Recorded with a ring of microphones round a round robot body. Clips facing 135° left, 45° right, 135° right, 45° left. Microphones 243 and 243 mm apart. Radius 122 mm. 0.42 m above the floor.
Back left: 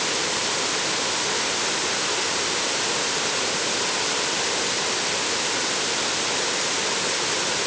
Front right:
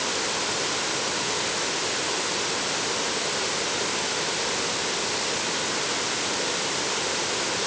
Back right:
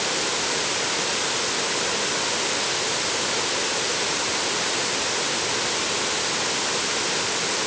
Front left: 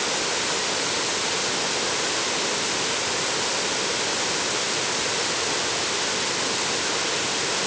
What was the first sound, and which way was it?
Only background noise.